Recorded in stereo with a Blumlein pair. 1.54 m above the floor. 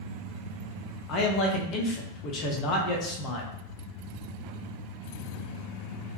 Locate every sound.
1.1 s a man speaking: 35° left, 0.6 m